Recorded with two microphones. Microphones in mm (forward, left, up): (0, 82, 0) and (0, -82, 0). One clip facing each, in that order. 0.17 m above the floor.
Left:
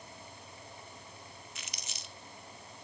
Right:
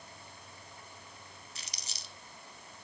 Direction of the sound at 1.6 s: 35° right (ahead or behind).